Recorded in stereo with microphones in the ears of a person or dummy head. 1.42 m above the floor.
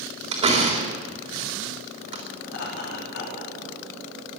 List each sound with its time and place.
0.3 s a door slam: 35° right (ahead or behind), 3.5 m
2.5 s laughter: 70° left (ahead or behind), 3 m